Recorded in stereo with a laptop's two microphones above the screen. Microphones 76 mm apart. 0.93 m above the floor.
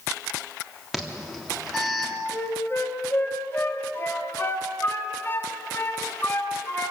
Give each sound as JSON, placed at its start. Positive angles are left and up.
{"t": 0.9, "sound": "an alarm", "side_deg": 0, "distance_m": 3.5}
{"t": 2.3, "sound": "a flute", "side_deg": 30, "distance_m": 2.0}